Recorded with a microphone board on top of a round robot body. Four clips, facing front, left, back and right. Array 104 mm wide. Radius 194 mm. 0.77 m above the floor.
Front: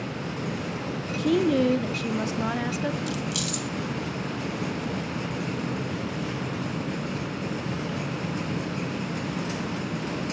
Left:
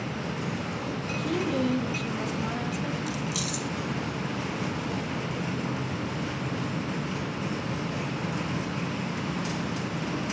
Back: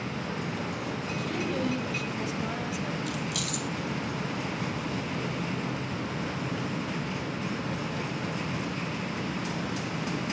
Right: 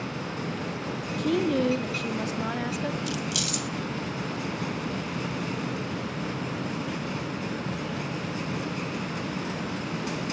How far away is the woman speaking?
About 2 m.